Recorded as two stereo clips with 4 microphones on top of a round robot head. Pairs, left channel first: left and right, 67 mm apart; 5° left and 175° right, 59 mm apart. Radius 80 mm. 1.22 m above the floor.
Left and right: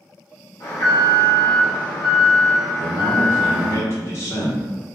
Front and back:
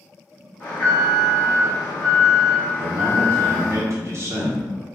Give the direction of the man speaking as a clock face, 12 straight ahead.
7 o'clock.